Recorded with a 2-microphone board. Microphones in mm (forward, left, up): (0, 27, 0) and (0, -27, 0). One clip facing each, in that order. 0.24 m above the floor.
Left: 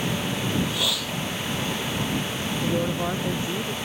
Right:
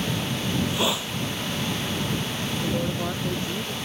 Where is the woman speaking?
15° left (ahead or behind).